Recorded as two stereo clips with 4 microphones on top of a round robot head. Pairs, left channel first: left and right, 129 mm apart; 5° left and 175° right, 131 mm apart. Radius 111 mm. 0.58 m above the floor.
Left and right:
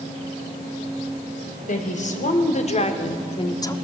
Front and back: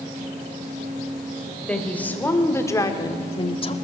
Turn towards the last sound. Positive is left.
turn(degrees=30)